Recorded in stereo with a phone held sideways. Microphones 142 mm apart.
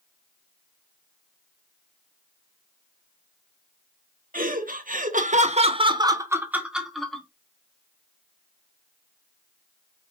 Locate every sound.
4.3 s laughter: 75° right (ahead or behind), 1.2 m; by 7.2 s 5° left (ahead or behind), 1.4 m